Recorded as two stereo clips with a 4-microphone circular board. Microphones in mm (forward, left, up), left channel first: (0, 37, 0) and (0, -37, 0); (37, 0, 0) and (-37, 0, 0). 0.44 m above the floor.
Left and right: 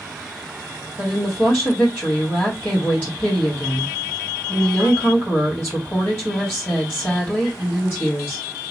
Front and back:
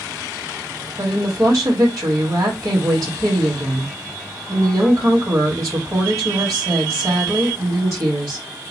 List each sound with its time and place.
1.0 s a woman speaking: 145° left, 1.7 m